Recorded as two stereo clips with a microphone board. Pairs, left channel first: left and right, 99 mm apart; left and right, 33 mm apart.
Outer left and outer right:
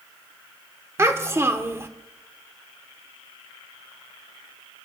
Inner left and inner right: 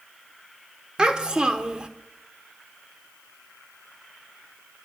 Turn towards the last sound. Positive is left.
turn(degrees=-25)  # may be behind; listen again after turning